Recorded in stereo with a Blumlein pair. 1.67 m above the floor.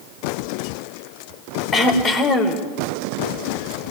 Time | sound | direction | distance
1.7 | throat clearing | 15° left | 2 m